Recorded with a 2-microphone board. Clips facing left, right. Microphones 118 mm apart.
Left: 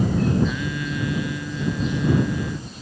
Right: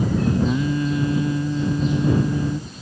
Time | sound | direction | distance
0.4 | singing | 35° right (ahead or behind) | ?